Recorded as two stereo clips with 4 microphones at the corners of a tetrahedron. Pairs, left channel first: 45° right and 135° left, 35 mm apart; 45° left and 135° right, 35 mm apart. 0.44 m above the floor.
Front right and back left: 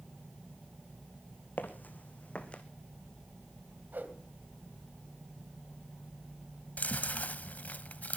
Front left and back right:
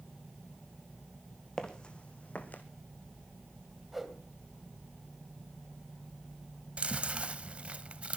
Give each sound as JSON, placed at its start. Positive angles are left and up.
{"t": 1.6, "sound": "footsteps", "azimuth_deg": -25, "distance_m": 1.8}
{"t": 3.9, "sound": "a whoosh", "azimuth_deg": 140, "distance_m": 2.0}
{"t": 6.8, "sound": "chewing", "azimuth_deg": -80, "distance_m": 0.7}